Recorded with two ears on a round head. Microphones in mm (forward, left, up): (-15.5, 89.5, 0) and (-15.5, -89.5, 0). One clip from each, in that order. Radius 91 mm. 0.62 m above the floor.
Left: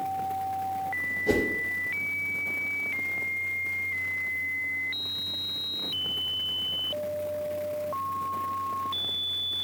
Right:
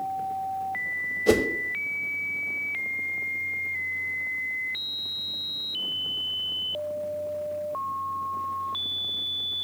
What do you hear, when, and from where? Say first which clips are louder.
1.3 s a whoosh: right 5 dB; 60° right (ahead or behind), 0.7 m